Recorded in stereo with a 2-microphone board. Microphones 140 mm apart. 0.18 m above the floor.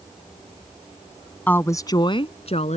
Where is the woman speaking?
10° left (ahead or behind); by 2.8 s 55° left (ahead or behind).